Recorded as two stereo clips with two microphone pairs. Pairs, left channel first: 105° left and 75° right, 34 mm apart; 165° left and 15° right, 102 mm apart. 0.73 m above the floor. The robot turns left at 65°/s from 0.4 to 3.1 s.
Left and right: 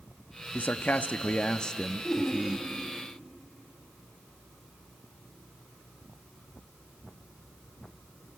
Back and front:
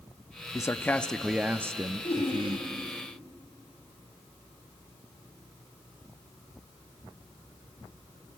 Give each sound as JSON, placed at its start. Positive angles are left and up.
{"t": 0.5, "sound": "a man speaking", "azimuth_deg": 120, "distance_m": 0.9}
{"t": 2.0, "sound": "laughter", "azimuth_deg": 180, "distance_m": 4.5}